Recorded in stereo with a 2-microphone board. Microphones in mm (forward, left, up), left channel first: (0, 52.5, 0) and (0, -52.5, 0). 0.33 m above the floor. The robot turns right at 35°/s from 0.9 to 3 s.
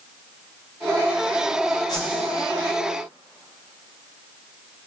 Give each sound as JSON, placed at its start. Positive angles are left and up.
{"t": 1.9, "sound": "a whoosh", "side_deg": 40, "distance_m": 1.3}